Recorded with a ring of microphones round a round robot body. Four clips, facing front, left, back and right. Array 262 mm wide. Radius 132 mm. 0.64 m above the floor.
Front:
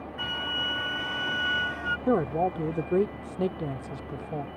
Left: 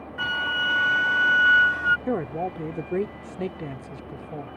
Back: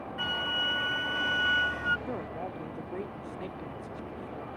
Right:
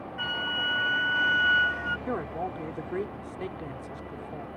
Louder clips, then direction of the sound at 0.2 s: Left 6 dB, back 1 dB; 85° left.